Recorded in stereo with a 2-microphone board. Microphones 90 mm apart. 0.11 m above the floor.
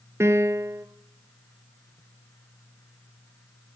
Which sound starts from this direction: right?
A piano, at 0.2 s.